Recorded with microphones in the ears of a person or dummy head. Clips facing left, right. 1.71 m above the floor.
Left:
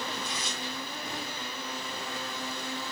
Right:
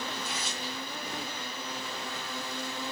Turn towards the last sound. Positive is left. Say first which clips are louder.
# left 1 dB
turn(degrees=-5)  # may be behind; listen again after turning